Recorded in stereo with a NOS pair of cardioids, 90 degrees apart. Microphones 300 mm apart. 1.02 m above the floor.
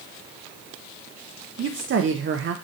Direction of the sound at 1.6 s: 45° right.